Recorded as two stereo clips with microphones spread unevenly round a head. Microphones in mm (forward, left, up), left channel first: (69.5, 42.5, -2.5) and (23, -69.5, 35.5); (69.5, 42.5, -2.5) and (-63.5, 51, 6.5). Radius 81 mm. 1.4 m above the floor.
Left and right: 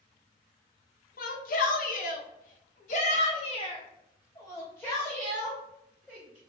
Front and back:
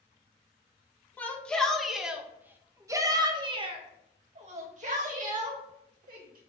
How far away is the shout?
About 1.7 m.